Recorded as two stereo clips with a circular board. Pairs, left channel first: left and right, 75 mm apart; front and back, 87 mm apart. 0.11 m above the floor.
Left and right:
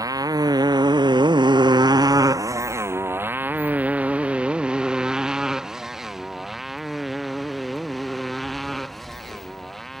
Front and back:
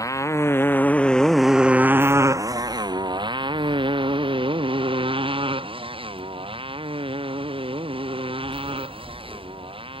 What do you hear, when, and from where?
0.0 s a motorcycle: 50° right; by 10.0 s straight behind